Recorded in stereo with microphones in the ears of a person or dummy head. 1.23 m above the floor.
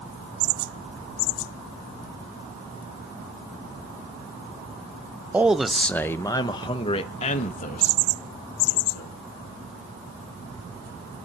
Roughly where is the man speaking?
Centre.